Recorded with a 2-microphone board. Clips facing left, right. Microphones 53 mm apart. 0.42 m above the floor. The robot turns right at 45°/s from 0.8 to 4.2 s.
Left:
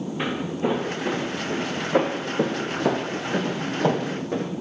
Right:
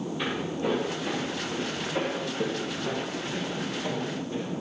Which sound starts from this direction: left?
Footsteps, at 0.2 s.